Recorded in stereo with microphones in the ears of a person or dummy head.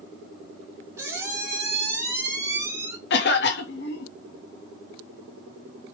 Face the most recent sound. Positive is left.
turn(degrees=60)  # may be behind; listen again after turning